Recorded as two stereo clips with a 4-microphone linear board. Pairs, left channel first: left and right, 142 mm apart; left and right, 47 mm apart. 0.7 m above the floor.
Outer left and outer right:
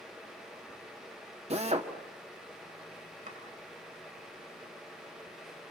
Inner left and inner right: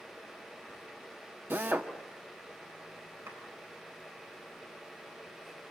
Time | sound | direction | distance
1.5 | a drill | 50° right (ahead or behind) | 1.6 m
3.3 | chopping | 70° right (ahead or behind) | 8.5 m